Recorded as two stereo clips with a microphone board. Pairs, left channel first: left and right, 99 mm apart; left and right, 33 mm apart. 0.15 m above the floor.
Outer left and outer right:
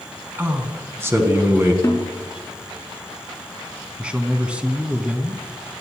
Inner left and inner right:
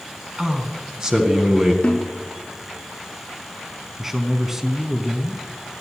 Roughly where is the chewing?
I don't hear chewing.